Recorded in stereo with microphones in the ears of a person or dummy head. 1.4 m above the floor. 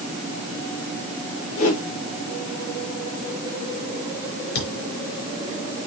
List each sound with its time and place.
1.6 s a whoosh: 40° left (ahead or behind), 7 m
4.5 s a thud: 65° left (ahead or behind), 5 m